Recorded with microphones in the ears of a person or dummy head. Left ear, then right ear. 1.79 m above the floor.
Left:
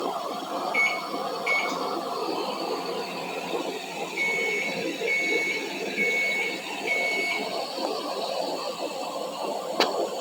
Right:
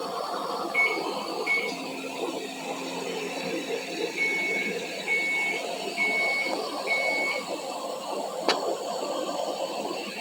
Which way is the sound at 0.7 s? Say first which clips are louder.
Even; 15° left (ahead or behind).